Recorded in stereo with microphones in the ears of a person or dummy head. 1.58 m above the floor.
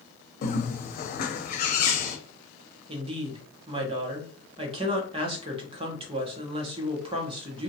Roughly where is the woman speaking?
Right.